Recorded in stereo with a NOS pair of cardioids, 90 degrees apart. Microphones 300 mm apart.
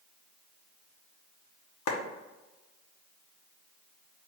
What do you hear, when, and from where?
1.9 s a clap: 60° left, 1.1 m